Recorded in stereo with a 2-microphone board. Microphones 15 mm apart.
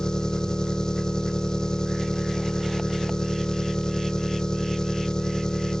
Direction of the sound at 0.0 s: 55° left (ahead or behind).